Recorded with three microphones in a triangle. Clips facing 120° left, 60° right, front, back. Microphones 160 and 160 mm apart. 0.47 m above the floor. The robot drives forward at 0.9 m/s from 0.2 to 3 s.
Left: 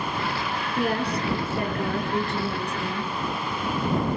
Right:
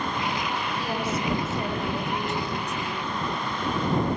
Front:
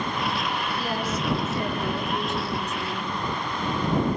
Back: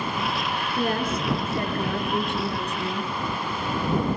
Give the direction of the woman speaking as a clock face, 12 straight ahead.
7 o'clock.